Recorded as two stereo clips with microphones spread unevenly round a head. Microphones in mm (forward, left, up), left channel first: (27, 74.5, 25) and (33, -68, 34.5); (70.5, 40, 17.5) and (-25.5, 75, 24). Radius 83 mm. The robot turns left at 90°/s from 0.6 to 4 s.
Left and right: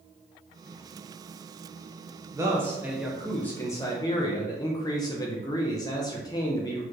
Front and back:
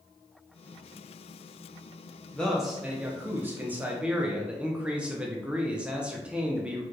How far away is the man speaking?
About 0.6 m.